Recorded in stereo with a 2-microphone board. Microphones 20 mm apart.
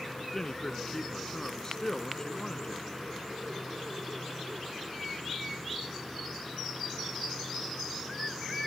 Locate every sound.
0.3 s a man speaking: 30° left (ahead or behind)